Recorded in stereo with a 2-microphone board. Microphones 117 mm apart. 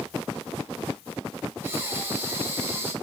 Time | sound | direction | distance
1.6 | breathing | 20° right (ahead or behind) | 1.8 m